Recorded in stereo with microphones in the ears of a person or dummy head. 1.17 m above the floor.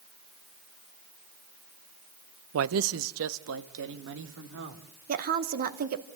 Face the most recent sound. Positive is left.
turn(degrees=-50)  # may be behind; listen again after turning